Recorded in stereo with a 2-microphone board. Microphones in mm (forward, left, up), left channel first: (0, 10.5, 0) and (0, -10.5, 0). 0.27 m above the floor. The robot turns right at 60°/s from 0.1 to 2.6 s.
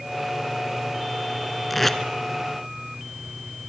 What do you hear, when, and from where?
1.7 s tape being pulled: centre (ahead or behind), 1.5 m; by 2.0 s 15° left (ahead or behind), 1.5 m